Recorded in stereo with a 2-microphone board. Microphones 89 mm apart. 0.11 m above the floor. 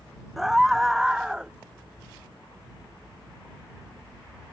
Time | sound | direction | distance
0.4 | a scream | centre (ahead or behind) | ?